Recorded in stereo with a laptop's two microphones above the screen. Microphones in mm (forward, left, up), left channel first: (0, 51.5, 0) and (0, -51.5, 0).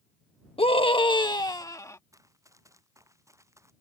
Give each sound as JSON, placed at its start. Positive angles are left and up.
{"t": 0.6, "sound": "a scream", "side_deg": 65}
{"t": 2.1, "sound": "running footsteps", "side_deg": -30}